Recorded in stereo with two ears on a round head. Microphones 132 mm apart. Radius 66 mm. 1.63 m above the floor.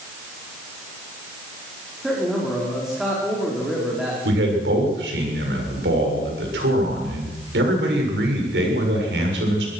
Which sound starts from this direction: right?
A man speaking, at 4.2 s.